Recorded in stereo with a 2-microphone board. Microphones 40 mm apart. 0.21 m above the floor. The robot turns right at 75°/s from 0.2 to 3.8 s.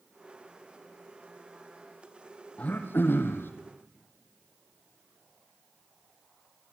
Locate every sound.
2.6 s throat clearing: 35° left, 2 m; by 3.5 s 105° left, 2 m